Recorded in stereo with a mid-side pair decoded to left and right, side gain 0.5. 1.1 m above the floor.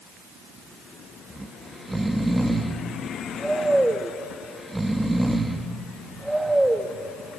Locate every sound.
1.3 s snoring: 10° right, 1.4 m